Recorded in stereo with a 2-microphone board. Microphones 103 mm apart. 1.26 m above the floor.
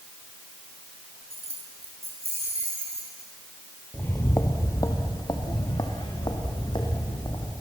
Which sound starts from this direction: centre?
Footsteps, at 3.9 s.